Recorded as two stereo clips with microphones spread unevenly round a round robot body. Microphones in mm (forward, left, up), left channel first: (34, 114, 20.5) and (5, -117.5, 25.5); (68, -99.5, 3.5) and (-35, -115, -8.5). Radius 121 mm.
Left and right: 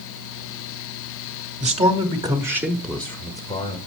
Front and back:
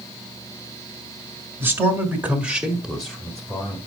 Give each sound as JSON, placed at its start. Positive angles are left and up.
{"t": 1.6, "sound": "a man speaking", "azimuth_deg": -135, "distance_m": 1.4}